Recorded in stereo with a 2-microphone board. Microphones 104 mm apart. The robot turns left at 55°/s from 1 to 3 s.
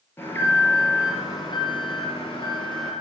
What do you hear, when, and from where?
0.2 s an alarm: 155° left, 4 m; by 2.9 s 50° left, 4 m